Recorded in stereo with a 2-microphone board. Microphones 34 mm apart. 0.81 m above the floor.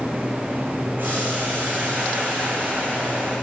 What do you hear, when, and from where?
1.0 s boiling: 60° right (ahead or behind), 9.5 m